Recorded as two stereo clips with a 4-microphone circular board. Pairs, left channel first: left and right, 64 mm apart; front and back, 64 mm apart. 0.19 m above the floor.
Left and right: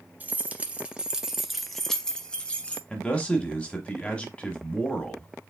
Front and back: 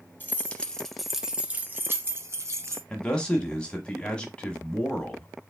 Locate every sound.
0.2 s keys jangling: 40° right, 0.9 m; by 2.8 s 160° left, 1.2 m
2.9 s a man speaking: 50° left, 1.2 m